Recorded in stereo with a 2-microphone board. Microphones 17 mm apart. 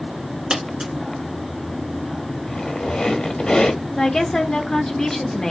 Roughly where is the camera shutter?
No camera shutter in this recording.